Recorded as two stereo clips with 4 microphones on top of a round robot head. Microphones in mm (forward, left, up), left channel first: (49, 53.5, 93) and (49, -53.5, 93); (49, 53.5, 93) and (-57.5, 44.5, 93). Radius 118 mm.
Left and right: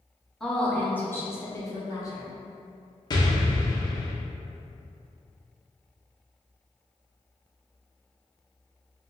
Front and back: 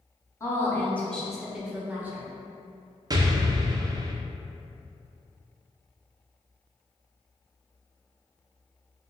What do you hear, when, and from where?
0.4 s a woman speaking: 10° left, 1.0 m; by 2.3 s 125° left, 1.2 m
3.1 s an explosion: 135° left, 0.5 m